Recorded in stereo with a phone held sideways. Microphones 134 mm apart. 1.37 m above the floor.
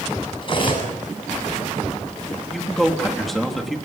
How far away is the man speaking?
About 3 m.